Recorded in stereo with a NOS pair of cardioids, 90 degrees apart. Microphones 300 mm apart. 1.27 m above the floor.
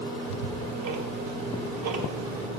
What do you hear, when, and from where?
0.2 s ticking: 70° right, 1.1 m